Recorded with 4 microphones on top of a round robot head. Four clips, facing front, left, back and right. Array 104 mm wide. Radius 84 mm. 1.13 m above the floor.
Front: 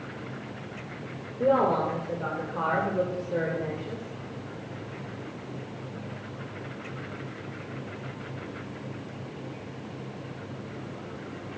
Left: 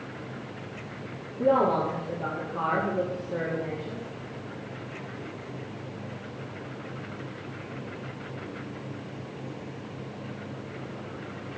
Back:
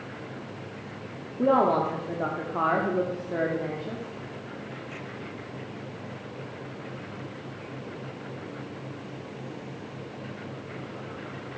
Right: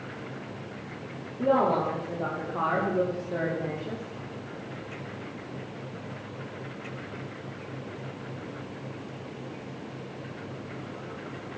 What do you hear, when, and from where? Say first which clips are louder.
1.4 s a woman speaking: left 1 dB, back 1 dB; 175° right, 3.5 m; by 4.0 s 150° right, 3.5 m